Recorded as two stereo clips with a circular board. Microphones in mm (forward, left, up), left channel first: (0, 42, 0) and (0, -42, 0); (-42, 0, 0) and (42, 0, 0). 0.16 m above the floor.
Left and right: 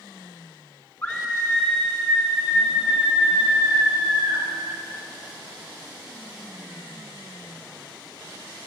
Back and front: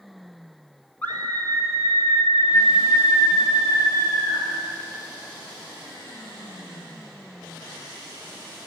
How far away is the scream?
About 1.9 m.